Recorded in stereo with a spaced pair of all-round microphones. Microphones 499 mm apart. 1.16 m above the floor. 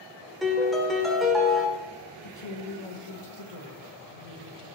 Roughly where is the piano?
Centre.